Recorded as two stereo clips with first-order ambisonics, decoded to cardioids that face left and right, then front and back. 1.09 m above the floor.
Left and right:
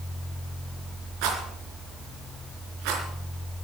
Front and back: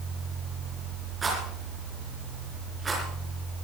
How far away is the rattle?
About 4 m.